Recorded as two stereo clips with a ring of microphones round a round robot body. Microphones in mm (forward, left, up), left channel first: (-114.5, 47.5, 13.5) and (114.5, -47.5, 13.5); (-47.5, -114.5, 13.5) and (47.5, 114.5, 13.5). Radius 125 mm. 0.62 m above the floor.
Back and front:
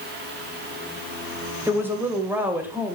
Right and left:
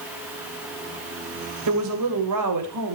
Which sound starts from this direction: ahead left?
A woman speaking, at 1.7 s.